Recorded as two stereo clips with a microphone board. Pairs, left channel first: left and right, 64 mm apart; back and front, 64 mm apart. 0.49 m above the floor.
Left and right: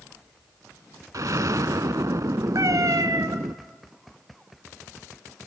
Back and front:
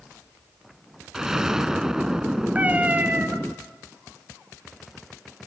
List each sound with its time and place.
1.1 s an explosion: 80° right, 0.7 m
2.5 s a cat meowing: 65° right, 1.6 m